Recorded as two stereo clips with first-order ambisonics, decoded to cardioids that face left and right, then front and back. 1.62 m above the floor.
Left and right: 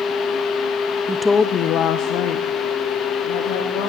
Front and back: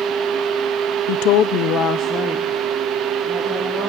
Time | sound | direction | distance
1.1 | a woman speaking | 15° right | 0.7 m